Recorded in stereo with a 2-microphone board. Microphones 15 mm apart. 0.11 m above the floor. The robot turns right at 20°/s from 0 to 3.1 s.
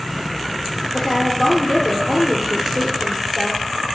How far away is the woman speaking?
About 2 m.